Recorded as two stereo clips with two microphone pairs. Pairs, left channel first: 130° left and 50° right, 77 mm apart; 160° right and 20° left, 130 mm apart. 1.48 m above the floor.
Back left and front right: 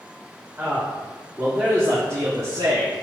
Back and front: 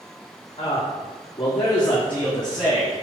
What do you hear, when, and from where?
0.6 s a man speaking: 110° right, 3 m; by 2.9 s 70° right, 3 m